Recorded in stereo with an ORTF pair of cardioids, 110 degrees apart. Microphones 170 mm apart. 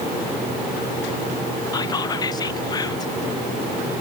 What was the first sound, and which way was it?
Whispering, 25° left.